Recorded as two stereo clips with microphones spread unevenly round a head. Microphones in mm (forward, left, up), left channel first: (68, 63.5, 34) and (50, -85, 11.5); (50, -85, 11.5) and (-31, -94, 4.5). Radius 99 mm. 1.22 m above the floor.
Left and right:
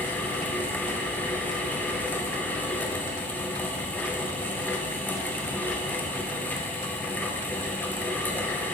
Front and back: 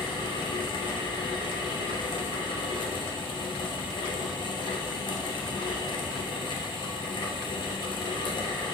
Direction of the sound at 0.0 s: Straight ahead.